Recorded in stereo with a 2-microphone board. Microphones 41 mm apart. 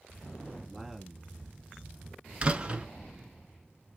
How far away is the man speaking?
About 1.1 m.